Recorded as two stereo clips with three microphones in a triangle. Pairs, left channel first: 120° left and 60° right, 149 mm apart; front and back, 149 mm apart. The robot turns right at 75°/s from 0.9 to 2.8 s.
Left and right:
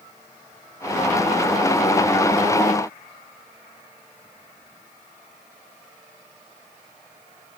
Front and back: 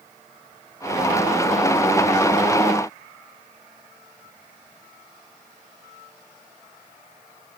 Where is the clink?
No clink in this recording.